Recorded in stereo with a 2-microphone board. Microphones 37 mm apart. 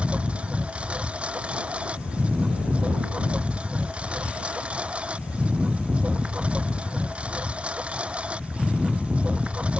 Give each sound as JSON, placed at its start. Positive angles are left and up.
{"t": 0.0, "sound": "a lawn mower", "side_deg": -30}